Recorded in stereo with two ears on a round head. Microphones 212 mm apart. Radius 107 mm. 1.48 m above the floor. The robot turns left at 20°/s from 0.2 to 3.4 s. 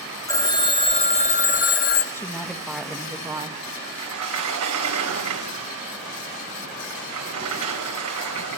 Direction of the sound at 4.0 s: 80° right.